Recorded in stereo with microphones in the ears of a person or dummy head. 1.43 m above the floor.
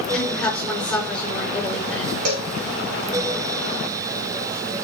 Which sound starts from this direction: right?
A cowbell, at 2.2 s.